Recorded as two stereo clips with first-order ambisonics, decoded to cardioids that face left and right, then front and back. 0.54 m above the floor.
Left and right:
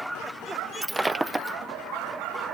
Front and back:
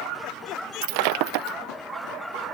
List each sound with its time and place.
0.8 s breaking glass: 175° right